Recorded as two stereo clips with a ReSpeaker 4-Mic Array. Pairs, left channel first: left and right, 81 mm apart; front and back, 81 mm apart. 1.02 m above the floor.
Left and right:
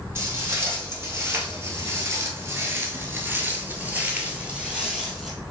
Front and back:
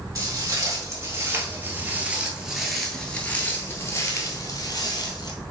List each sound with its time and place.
0.1 s footsteps: 145° right, 1.9 m; by 5.3 s 10° right, 1.7 m